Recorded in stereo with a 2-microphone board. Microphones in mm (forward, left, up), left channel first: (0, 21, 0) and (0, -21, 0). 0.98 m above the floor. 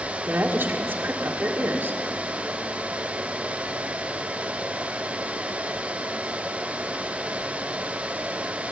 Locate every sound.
0.3 s a woman speaking: 60° right (ahead or behind), 2 m